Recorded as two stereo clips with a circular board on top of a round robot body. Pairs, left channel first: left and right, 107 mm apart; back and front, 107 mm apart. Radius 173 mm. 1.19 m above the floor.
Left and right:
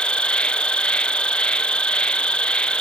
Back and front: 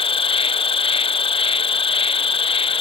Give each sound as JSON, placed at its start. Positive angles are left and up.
{"t": 0.0, "sound": "an insect", "azimuth_deg": 170}